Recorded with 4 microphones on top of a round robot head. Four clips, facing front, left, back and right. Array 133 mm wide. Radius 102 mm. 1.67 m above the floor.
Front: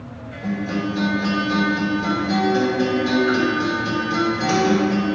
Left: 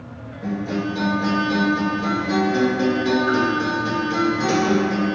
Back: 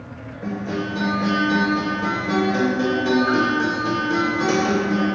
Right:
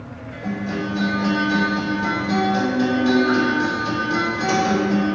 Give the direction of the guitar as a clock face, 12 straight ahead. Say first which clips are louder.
Left 1 dB, front 2 dB; 7 o'clock.